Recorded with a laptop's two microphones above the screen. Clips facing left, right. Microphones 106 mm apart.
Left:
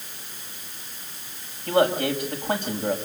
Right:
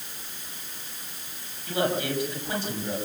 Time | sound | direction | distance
1.7 | a man speaking | 50° left (ahead or behind) | 5.5 m